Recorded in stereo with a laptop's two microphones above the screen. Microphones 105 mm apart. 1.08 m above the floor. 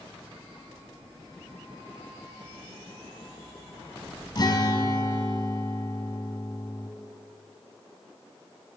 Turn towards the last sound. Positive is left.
turn(degrees=45)  # may be behind; listen again after turning